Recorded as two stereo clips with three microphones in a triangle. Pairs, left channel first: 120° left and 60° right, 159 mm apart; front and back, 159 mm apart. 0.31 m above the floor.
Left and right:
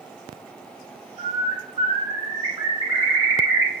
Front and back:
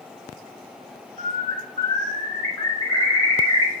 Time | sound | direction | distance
1.2 | a bird | 45° right | 0.8 m